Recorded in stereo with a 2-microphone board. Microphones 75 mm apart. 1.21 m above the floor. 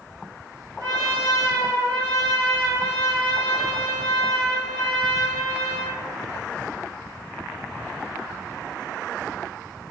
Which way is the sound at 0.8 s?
85° right.